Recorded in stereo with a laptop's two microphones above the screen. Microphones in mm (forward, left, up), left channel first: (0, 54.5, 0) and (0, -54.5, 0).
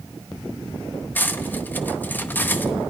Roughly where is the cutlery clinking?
Centre.